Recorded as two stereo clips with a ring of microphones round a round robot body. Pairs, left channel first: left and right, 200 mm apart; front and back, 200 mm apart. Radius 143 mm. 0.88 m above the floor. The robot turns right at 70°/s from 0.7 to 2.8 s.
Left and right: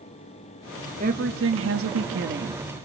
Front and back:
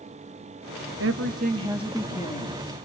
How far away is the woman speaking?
About 1.3 m.